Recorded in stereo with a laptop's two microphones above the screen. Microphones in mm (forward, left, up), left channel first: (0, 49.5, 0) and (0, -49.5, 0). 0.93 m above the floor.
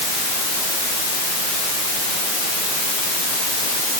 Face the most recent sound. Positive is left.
No sound to turn to.